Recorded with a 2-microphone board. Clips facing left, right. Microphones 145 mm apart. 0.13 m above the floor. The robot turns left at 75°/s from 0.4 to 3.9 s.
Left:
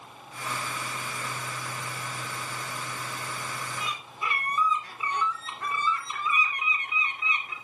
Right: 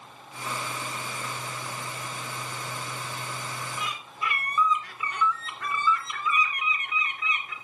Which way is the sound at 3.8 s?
30° left (ahead or behind).